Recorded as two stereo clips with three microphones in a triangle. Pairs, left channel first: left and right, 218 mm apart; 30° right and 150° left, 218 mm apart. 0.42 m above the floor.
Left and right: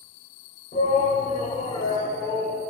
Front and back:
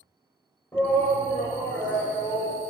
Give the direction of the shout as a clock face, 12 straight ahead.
10 o'clock.